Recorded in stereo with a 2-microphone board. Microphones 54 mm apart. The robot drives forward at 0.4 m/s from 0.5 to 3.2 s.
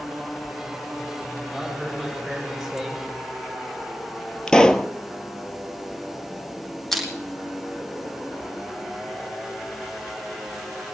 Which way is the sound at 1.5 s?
5° left (ahead or behind).